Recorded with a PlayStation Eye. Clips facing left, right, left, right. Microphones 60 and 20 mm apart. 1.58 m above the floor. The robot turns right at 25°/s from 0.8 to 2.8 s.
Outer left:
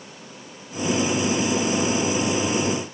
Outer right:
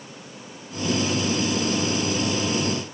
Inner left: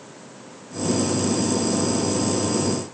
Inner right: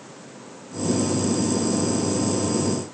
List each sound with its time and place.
Only background noise.